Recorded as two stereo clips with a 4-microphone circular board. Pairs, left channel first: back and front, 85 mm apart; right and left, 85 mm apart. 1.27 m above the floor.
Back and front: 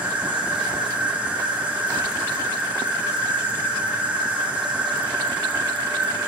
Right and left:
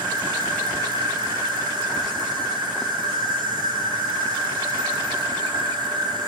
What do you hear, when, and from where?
0.0 s an insect: 75° left, 4 m